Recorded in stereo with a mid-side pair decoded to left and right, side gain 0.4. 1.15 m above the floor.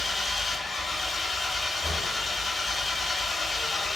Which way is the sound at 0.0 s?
40° left.